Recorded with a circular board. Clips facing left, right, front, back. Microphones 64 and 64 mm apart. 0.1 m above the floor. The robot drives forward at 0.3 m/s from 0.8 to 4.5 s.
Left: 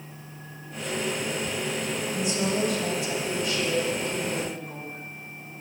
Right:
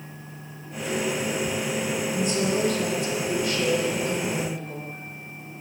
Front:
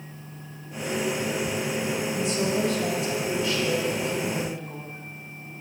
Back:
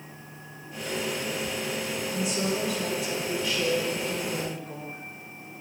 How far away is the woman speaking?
About 1.8 m.